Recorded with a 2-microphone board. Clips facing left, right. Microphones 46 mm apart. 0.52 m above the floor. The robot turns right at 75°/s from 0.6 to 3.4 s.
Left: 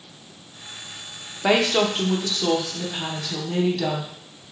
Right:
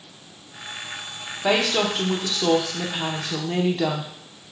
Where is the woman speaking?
135° left, 0.8 m; by 4.1 s 75° right, 0.8 m.